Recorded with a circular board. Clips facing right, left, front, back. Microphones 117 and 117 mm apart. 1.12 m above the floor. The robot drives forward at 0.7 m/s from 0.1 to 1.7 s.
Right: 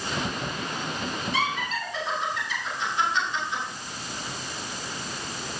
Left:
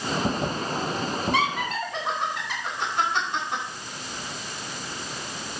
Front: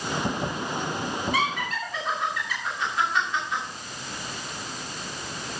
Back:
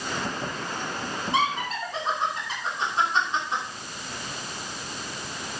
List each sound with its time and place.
1.3 s laughter: 115° left, 2.5 m; by 3.6 s 120° left, 2.5 m